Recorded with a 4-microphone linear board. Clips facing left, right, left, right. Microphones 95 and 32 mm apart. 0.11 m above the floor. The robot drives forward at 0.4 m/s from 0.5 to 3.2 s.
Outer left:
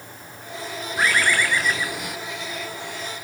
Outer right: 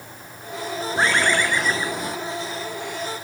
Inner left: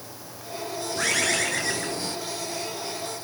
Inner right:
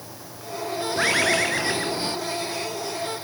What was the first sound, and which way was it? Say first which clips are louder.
A bird: outer right 1 dB, inner right 4 dB; 30° right (ahead or behind).